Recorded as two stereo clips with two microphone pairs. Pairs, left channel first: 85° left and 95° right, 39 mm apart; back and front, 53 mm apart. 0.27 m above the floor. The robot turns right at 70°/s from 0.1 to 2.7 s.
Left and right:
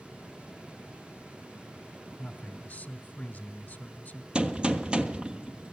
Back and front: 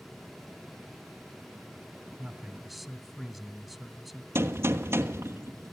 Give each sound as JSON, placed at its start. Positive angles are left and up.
{"t": 2.2, "sound": "a man speaking", "azimuth_deg": 60, "distance_m": 1.5}
{"t": 4.3, "sound": "a gunshot", "azimuth_deg": -30, "distance_m": 1.3}